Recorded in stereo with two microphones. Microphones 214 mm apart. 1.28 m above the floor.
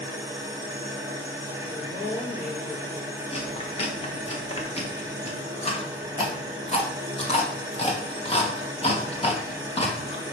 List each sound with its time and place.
0.0 s an engine running: 15° right (ahead or behind), 1.6 m
1.7 s a woman speaking: 50° left (ahead or behind), 1.7 m
3.3 s chewing: 30° left (ahead or behind), 1.3 m